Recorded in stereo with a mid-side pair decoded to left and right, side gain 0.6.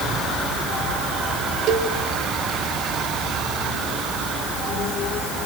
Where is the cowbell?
60° right, 3.5 m.